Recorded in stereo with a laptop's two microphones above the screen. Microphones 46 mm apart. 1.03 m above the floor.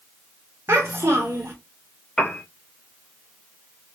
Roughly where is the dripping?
No dripping in this recording.